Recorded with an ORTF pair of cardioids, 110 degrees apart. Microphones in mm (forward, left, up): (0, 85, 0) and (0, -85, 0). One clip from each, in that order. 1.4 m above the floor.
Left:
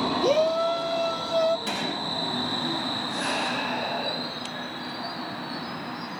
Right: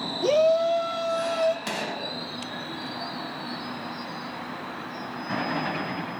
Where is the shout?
5° right, 0.6 m; by 1.6 s 5° left, 1.3 m.